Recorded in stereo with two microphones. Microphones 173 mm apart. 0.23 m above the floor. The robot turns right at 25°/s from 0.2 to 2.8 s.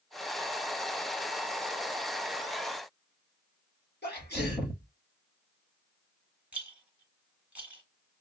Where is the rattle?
10° right (ahead or behind), 1.4 m.